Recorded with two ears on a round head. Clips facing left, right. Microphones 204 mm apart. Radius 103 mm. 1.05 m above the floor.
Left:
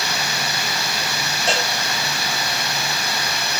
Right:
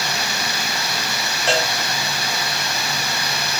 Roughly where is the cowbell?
Centre.